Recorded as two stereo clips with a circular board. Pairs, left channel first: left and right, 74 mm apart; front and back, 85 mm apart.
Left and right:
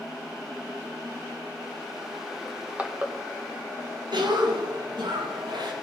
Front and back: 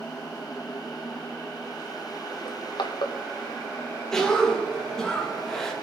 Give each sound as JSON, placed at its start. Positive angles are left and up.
{"t": 2.5, "sound": "crushing", "azimuth_deg": -20, "distance_m": 1.7}
{"t": 4.1, "sound": "a cough", "azimuth_deg": -85, "distance_m": 2.5}